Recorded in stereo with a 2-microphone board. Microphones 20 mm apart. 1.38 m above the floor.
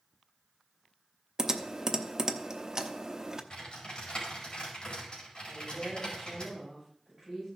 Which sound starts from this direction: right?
Typing on a keyboard, at 1.4 s.